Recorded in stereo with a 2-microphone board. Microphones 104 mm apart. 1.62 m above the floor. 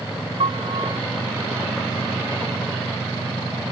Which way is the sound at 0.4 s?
65° right (ahead or behind).